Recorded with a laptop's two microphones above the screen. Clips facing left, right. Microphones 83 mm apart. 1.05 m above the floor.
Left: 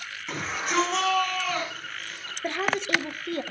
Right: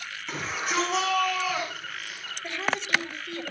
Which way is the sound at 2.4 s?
45° left (ahead or behind).